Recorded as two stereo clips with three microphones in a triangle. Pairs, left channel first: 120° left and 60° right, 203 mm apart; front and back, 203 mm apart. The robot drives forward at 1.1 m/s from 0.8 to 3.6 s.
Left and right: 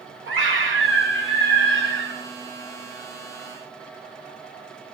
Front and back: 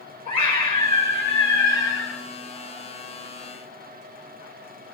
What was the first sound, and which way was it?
A scream, 60° right.